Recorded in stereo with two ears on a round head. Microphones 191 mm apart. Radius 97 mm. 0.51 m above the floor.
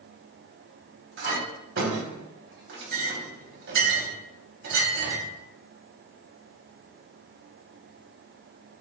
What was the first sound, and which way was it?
A clink, 65° right (ahead or behind).